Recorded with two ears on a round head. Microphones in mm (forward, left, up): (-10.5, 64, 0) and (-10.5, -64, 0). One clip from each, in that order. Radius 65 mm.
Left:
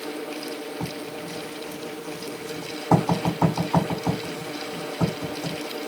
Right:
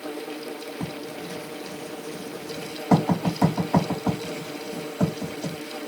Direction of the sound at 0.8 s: 35° right (ahead or behind).